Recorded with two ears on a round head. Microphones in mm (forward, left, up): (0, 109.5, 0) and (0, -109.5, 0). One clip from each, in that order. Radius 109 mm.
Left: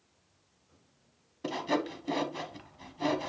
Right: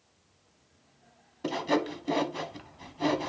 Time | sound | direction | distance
1.4 | sawing | centre (ahead or behind) | 0.9 m